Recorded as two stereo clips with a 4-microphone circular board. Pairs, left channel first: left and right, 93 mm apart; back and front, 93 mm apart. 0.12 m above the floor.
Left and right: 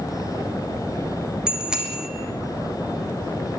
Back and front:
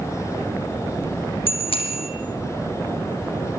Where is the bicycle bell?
170° right, 4 m.